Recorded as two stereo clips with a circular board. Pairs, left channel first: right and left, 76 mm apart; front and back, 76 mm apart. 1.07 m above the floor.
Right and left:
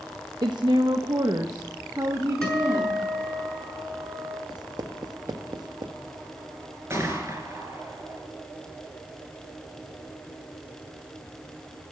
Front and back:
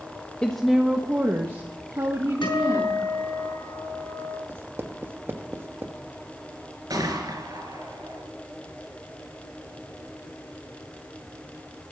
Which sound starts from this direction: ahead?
A guitar, at 2.4 s.